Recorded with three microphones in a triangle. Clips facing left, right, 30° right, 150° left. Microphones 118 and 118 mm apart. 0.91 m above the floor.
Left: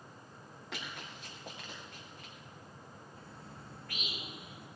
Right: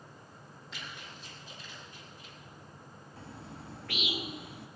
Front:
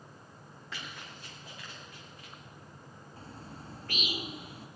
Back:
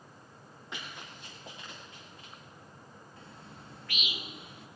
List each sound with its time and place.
0.7 s running footsteps: 80° left, 8.5 m; by 2.3 s 90° left, 6.5 m
3.2 s a bird: 85° right, 0.8 m